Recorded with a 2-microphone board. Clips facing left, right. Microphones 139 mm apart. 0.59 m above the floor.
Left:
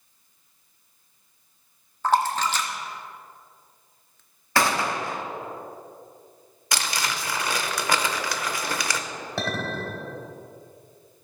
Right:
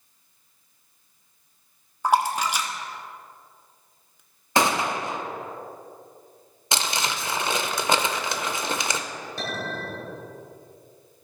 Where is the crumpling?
25° right (ahead or behind), 0.6 m.